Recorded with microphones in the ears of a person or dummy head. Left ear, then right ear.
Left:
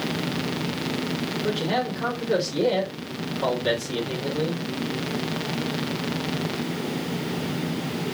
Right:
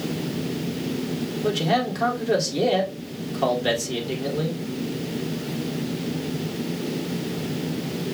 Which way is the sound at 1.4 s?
80° right.